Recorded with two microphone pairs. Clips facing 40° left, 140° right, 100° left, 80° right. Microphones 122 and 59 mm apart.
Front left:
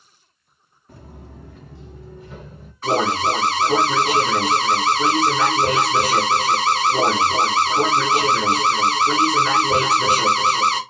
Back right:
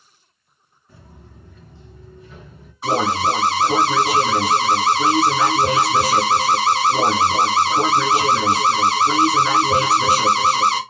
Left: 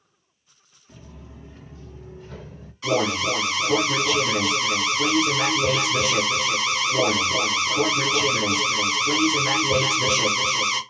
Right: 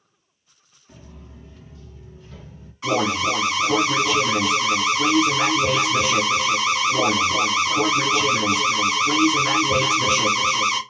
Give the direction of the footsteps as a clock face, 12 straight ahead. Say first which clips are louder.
Front left 5 dB, even; 12 o'clock.